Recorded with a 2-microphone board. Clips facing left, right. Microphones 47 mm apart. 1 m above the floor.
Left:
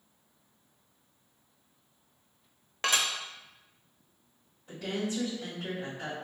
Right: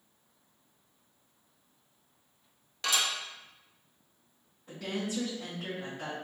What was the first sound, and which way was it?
Dishes clattering, 35° left (ahead or behind).